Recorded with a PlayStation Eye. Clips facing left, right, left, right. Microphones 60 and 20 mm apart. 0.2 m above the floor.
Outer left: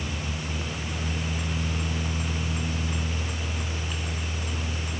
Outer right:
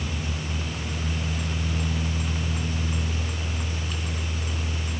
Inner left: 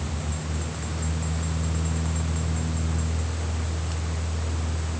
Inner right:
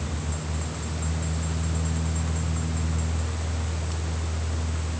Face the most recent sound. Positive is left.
No sound to turn to.